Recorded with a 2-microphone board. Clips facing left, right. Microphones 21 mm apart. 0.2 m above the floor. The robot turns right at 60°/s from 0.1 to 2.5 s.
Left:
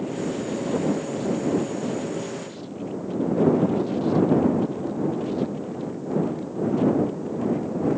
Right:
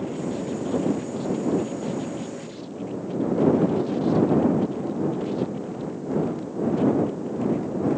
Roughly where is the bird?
No bird in this recording.